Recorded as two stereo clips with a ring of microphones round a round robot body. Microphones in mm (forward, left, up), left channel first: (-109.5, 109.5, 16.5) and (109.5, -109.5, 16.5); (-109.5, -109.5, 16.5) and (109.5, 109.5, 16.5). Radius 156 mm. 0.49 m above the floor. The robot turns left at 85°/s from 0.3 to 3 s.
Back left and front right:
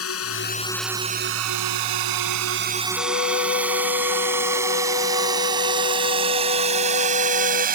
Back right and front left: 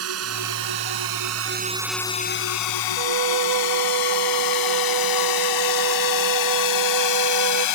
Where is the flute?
80° left.